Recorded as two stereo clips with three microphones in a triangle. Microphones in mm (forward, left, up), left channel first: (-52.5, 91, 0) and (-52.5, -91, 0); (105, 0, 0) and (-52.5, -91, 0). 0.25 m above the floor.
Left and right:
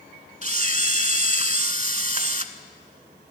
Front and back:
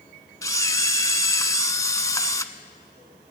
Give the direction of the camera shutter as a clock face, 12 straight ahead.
1 o'clock.